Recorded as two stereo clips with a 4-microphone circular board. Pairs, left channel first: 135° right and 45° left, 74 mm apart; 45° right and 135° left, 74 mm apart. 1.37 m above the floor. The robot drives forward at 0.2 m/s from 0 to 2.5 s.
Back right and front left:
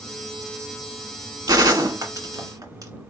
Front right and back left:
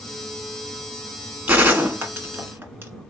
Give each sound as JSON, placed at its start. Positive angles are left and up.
{"t": 1.5, "sound": "a gunshot", "azimuth_deg": 70, "distance_m": 1.5}